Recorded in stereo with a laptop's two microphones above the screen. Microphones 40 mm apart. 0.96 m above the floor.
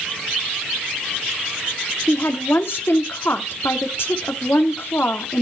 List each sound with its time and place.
2.1 s a woman speaking: 70° left (ahead or behind), 1.8 m